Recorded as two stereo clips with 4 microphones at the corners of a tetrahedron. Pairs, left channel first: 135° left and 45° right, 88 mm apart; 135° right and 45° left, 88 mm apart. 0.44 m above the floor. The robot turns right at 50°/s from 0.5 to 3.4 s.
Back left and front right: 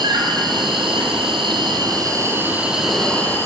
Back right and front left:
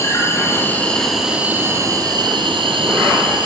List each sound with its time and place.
0.0 s an insect: 75° right, 1.7 m; by 3.5 s 70° left, 1.7 m